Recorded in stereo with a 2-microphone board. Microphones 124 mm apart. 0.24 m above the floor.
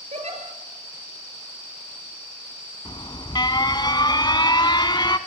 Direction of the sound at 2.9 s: 35° left (ahead or behind).